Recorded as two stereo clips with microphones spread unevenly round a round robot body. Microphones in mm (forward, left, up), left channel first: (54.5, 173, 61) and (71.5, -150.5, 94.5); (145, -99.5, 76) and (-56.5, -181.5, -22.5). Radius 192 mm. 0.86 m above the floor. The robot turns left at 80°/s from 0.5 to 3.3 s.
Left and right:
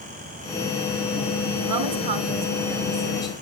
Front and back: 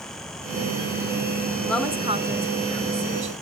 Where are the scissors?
No scissors in this recording.